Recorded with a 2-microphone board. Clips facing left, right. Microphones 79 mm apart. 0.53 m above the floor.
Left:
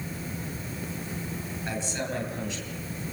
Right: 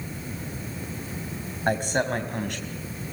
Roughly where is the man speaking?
Right.